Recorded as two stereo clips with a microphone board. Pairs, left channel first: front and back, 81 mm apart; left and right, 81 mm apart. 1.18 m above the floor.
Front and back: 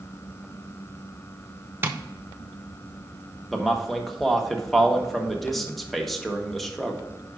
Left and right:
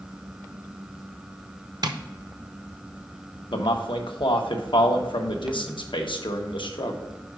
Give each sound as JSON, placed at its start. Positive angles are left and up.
{"t": 1.8, "sound": "tapping", "azimuth_deg": -120, "distance_m": 0.6}
{"t": 3.5, "sound": "a man speaking", "azimuth_deg": 85, "distance_m": 1.0}